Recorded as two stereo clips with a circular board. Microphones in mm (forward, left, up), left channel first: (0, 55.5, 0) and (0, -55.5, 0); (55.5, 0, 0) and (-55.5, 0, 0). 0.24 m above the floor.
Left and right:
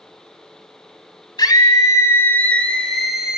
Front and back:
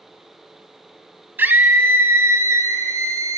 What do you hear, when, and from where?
1.4 s a scream: 115° left, 1.5 m; by 3.4 s 165° right, 1.3 m